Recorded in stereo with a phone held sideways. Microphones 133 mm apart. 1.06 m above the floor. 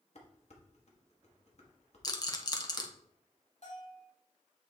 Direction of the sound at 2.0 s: 30° left (ahead or behind).